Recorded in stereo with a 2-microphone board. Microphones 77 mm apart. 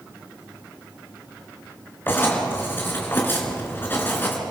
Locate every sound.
2.1 s writing: 30° left (ahead or behind), 3.5 m